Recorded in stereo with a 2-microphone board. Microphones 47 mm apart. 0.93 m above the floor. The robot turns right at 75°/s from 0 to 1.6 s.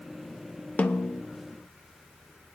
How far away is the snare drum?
About 0.5 m.